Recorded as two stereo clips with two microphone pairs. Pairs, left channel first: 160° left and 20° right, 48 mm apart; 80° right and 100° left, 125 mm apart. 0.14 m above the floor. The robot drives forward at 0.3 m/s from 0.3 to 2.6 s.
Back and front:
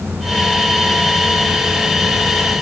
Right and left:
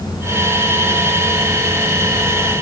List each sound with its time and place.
Only background noise.